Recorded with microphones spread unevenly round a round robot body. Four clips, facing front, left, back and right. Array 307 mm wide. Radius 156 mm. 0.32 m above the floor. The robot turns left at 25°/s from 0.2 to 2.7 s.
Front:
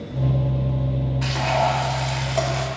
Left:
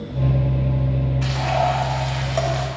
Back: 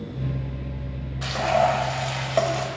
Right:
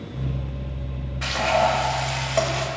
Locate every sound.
1.2 s frying: 155° right, 1.3 m; by 2.7 s 170° left, 1.3 m